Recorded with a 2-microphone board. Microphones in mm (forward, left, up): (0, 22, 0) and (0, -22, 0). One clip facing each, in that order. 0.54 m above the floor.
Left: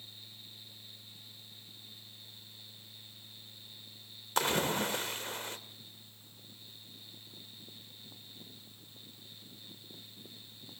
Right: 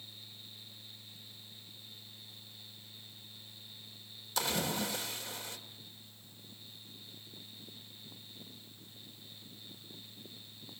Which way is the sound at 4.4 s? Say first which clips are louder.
Left 4 dB; 45° left (ahead or behind).